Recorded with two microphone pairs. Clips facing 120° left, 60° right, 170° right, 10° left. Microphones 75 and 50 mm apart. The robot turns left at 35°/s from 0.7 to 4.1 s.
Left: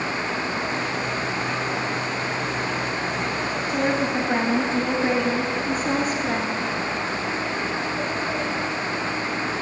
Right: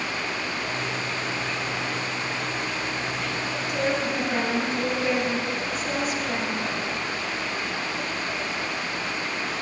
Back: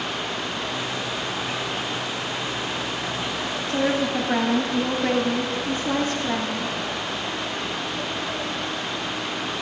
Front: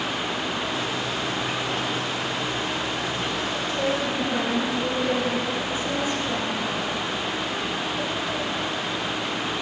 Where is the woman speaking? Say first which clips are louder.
Left 3 dB, back 4 dB; 175° left, 2.5 m; by 6.7 s 160° left, 2.5 m.